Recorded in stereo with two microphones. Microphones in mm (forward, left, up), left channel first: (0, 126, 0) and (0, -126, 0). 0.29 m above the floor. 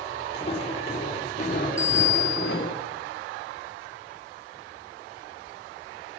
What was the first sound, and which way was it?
Footsteps, 20° left (ahead or behind).